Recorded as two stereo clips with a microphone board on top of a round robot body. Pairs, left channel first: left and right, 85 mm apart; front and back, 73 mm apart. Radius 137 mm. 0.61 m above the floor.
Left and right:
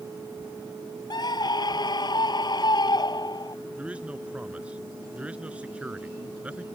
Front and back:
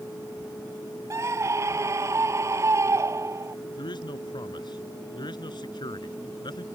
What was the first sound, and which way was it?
A scream, 130° left.